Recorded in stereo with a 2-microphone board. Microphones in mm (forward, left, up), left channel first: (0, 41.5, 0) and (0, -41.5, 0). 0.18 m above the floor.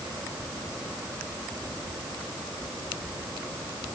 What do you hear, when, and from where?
Only background noise.